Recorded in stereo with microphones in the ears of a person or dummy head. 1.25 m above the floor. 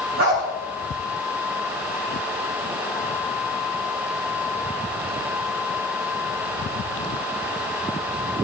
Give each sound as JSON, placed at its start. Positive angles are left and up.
{"t": 0.2, "sound": "a dog barking", "side_deg": -55, "distance_m": 2.5}